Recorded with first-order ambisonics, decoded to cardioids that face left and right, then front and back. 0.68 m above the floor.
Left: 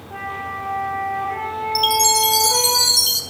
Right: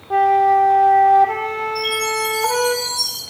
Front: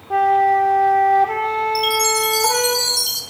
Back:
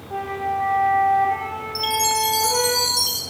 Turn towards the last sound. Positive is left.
turn(degrees=80)